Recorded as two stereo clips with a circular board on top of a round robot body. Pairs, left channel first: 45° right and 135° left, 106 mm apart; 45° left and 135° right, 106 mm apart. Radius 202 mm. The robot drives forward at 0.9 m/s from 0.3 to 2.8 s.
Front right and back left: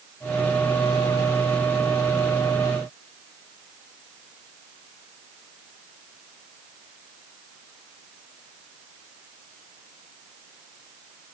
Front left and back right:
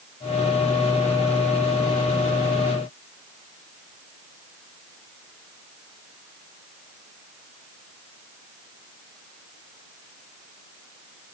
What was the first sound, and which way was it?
Only background noise.